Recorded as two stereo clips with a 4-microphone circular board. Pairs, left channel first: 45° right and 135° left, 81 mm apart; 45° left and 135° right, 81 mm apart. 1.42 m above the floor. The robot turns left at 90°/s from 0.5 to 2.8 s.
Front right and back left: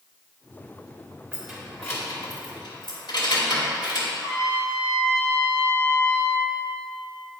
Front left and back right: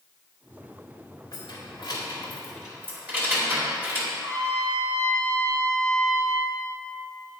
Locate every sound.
1.3 s keys jangling: 65° left, 2 m; by 4.1 s 70° right, 2 m
4.2 s a trumpet: straight behind, 2.5 m